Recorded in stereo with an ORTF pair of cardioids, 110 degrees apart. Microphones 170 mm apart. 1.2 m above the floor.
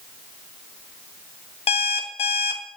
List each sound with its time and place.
1.7 s an alarm clock: 35° left, 1.1 m